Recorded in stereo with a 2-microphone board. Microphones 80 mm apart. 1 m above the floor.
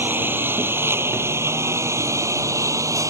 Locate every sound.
0.0 s a lawn mower: 25° right (ahead or behind); by 3.1 s 40° right (ahead or behind)